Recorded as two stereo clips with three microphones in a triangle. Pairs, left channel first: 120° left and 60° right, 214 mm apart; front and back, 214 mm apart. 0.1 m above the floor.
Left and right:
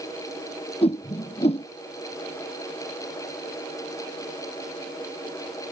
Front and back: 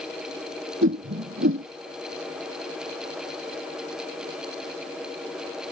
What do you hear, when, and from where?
0.8 s a whoosh: straight behind